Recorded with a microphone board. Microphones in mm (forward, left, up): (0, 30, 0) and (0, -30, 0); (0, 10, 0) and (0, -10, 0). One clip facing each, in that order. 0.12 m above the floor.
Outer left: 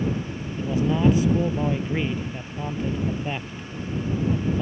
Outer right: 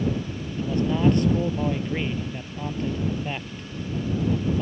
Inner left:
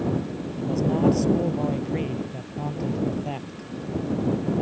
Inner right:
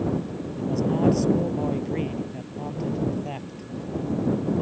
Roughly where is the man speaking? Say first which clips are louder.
Outer left 1 dB, inner left 1 dB; centre.